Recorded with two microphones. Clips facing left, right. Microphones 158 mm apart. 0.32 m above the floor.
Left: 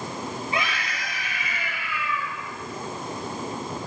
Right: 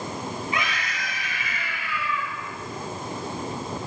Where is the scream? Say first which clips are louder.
Left 1 dB; 30° left (ahead or behind), 7.5 m; by 2.4 s 20° left (ahead or behind), 6 m.